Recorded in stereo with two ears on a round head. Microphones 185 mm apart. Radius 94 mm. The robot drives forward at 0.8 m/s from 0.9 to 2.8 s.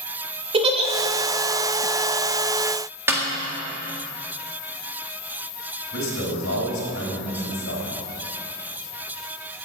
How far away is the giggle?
About 2 m.